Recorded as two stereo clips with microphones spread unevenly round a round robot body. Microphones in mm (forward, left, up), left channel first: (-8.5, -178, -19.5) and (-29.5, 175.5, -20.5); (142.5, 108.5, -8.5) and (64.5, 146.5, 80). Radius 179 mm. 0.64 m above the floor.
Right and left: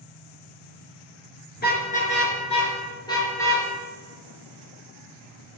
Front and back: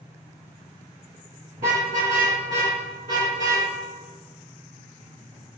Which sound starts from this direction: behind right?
A car horn, at 1.6 s.